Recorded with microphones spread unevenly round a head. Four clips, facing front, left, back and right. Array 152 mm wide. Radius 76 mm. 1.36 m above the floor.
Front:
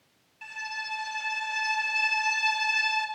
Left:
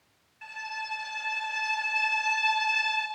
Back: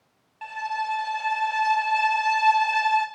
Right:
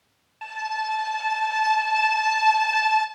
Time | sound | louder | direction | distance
0.4 | a violin | right 10 dB, back 10 dB | 140° right | 2.0 m